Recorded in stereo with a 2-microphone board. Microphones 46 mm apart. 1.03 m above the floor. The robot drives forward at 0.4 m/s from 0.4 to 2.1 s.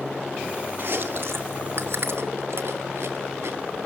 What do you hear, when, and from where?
0.8 s chewing: 50° right (ahead or behind), 0.9 m; by 3.6 s 60° right (ahead or behind), 0.8 m